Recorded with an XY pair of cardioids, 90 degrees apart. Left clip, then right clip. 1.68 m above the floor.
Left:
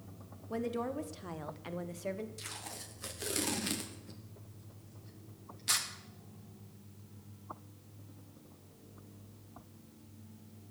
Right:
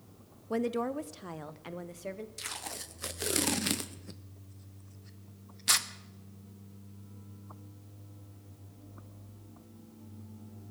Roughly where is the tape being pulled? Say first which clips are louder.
Right 5 dB; ahead right.